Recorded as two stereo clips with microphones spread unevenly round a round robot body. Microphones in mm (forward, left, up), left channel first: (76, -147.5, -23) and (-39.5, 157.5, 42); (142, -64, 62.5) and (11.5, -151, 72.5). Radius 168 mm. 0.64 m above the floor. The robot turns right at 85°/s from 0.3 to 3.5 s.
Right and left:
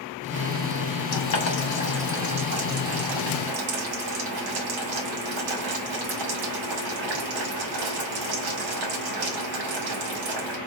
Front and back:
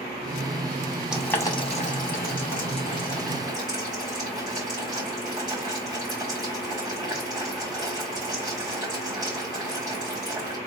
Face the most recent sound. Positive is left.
turn(degrees=145)